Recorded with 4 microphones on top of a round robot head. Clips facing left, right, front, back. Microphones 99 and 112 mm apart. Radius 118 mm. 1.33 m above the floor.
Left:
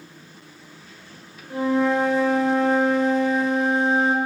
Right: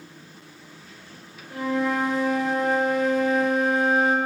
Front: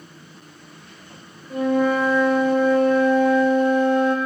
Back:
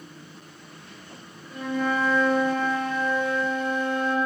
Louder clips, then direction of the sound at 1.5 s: Left 4 dB, front 7 dB; 35° left.